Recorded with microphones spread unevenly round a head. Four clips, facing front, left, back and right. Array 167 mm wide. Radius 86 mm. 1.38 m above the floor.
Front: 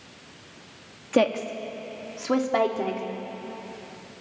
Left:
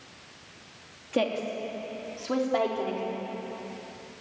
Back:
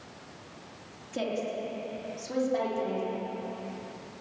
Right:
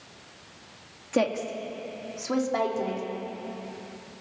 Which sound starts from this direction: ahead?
A woman speaking, at 1.1 s.